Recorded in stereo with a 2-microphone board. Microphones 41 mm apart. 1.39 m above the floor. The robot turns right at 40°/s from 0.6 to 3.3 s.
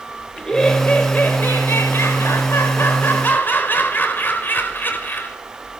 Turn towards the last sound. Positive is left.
turn(degrees=135)